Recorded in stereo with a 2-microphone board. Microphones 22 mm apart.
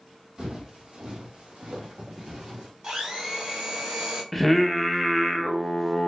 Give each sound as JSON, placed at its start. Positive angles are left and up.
{"t": 0.4, "sound": "footsteps", "side_deg": -40, "distance_m": 1.9}
{"t": 2.8, "sound": "a blender", "side_deg": -40, "distance_m": 2.0}
{"t": 4.3, "sound": "singing", "side_deg": 0, "distance_m": 0.6}